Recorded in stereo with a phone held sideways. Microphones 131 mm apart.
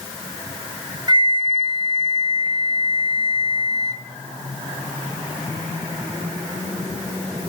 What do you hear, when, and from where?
1.1 s a flute: 35° right (ahead or behind), 2.5 m